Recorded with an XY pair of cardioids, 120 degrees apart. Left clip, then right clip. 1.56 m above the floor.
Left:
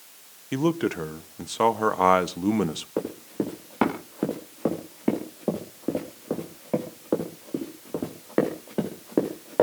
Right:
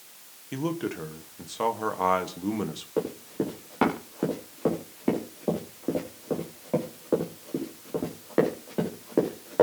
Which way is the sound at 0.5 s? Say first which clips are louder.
Left 6 dB; 35° left.